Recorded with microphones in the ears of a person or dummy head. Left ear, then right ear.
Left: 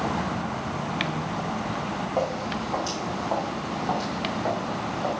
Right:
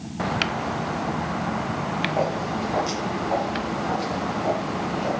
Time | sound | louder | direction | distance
2.2 | footsteps | right 2 dB | 10° left (ahead or behind) | 4.5 m